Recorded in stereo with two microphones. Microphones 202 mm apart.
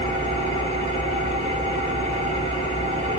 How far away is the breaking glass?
I don't hear breaking glass.